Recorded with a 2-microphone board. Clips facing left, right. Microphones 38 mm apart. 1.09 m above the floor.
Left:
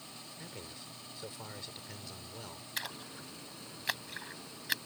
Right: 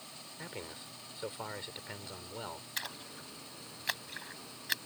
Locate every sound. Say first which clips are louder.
0.4 s a man speaking: right 5 dB; 30° right (ahead or behind)
2.8 s a splash: left 3 dB; centre (ahead or behind)